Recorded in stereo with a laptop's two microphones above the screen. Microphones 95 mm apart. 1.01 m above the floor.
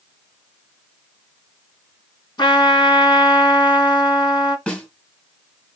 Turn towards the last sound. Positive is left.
turn(degrees=10)  # may be behind; listen again after turning